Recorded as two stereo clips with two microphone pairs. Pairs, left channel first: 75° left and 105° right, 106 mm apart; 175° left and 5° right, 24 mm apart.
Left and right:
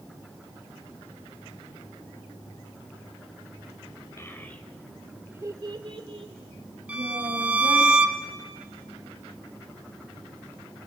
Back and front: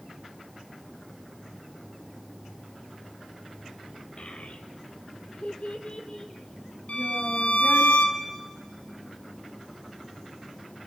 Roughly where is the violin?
Behind.